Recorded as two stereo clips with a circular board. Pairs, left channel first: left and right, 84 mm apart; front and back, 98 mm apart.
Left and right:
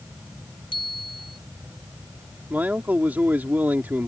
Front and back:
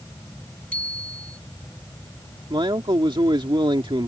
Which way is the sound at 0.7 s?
75° left.